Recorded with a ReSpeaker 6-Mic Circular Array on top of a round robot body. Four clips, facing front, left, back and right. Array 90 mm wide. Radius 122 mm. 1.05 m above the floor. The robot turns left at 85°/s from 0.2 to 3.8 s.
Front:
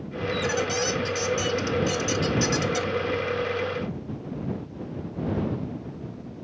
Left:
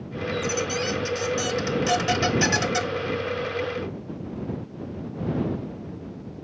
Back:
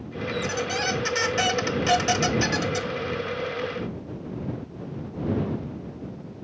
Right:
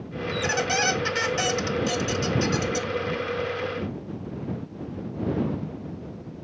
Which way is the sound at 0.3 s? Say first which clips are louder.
Right 1 dB, front 2 dB; 65° right.